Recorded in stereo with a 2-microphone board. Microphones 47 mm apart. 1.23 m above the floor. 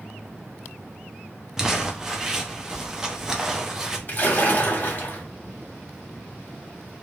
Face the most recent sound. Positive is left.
turn(degrees=40)  # may be behind; listen again after turning